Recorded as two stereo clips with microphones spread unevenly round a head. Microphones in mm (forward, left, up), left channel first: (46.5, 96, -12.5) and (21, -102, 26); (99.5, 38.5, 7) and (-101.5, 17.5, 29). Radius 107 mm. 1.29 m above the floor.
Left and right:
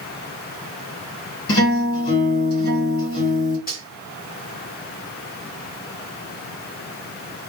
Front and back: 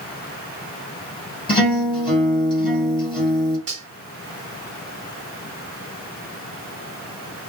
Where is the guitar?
70° left, 1.7 m.